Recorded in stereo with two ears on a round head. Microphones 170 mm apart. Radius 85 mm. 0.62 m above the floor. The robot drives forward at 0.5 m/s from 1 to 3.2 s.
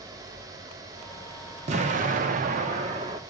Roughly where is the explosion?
Right.